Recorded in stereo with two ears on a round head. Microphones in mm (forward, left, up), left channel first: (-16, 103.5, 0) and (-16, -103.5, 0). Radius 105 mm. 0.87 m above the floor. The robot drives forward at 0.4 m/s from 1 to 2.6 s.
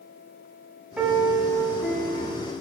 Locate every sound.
1.0 s a piano: 5° right (ahead or behind), 0.9 m